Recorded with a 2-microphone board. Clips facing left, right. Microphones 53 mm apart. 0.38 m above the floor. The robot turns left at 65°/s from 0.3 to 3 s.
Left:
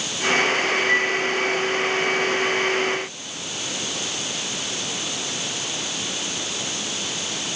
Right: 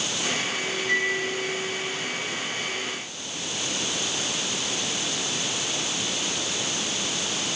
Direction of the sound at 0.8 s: 15° left (ahead or behind).